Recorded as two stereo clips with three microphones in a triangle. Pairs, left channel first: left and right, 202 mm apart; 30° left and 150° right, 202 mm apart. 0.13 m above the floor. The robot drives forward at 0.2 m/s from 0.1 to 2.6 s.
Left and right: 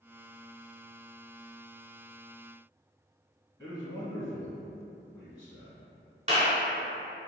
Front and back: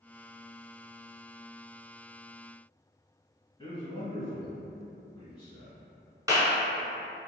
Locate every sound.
3.6 s a man speaking: 50° left, 1.3 m
6.3 s a clap: 90° right, 1.2 m